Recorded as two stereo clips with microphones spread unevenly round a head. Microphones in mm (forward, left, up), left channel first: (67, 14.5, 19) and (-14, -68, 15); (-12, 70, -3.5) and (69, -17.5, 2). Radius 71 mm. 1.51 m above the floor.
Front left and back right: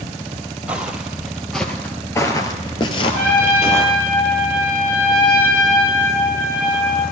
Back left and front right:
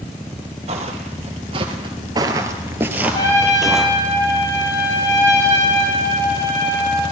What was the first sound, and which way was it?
Footsteps, 55° right.